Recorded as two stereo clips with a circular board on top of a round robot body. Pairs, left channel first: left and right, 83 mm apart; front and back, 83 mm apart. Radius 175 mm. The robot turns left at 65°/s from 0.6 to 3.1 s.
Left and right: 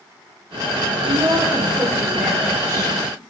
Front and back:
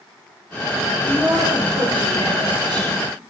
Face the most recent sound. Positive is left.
turn(degrees=125)